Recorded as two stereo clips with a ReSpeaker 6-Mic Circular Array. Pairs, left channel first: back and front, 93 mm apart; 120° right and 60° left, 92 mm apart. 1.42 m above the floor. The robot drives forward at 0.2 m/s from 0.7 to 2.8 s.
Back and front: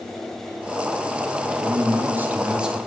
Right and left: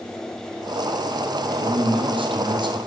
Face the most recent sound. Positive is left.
turn(degrees=85)